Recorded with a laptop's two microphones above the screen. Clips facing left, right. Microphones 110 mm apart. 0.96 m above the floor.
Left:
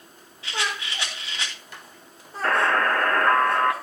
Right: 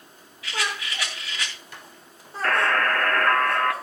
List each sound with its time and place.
0.4 s a rattle: 30° left (ahead or behind), 2.5 m
2.4 s a buzzer: 20° left (ahead or behind), 1.0 m